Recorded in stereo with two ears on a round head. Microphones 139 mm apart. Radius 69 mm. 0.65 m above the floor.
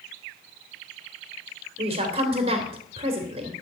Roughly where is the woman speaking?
Right.